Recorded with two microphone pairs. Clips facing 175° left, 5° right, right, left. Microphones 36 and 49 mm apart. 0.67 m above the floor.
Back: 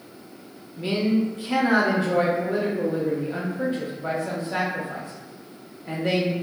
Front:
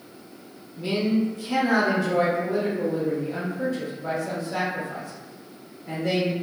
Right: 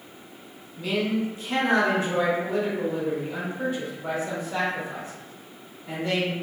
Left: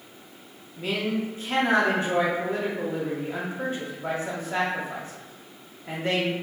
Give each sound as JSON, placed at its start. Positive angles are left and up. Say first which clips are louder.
{"t": 0.8, "sound": "a man speaking", "louder": "back 1 dB, right 2 dB", "azimuth_deg": 125, "distance_m": 1.2}